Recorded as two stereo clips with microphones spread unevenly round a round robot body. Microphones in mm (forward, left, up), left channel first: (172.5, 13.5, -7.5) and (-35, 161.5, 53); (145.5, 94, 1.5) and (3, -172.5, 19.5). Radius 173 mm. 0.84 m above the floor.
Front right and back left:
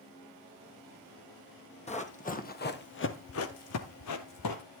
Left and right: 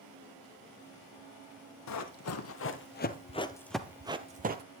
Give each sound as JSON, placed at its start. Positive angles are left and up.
{"t": 1.9, "sound": "running footsteps", "azimuth_deg": 35, "distance_m": 1.8}